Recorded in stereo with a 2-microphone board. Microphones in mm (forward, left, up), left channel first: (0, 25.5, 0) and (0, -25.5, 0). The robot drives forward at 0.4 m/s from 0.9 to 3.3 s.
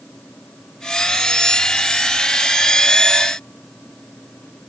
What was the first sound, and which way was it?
Only background noise.